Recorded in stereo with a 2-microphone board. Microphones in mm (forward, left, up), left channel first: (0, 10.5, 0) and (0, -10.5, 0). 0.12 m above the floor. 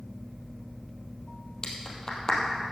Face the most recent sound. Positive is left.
turn(degrees=35)  # may be behind; listen again after turning